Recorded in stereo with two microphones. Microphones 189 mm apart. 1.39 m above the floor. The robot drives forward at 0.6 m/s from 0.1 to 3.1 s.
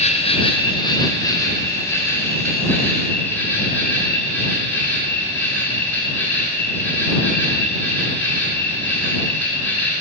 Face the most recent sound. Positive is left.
turn(degrees=10)  # may be behind; listen again after turning